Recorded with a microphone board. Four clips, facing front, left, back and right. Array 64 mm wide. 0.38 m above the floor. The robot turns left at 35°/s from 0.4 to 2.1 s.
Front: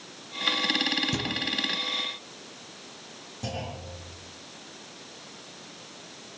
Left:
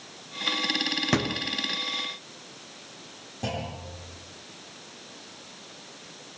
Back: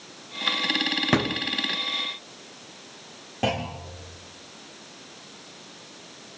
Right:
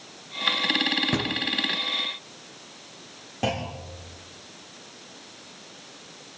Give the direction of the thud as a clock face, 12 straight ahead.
6 o'clock.